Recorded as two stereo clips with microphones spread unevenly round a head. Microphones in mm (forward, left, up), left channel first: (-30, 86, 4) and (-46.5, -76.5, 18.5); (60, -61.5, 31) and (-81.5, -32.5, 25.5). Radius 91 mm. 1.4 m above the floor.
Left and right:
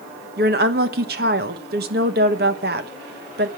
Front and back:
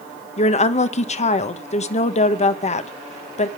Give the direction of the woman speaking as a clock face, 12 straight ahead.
2 o'clock.